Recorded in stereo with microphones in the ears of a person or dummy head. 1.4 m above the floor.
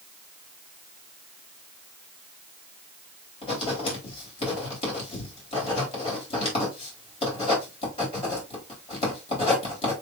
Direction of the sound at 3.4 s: 35° left (ahead or behind).